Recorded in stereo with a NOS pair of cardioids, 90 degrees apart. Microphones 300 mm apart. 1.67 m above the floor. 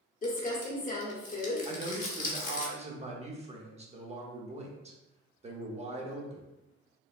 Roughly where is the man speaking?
Ahead.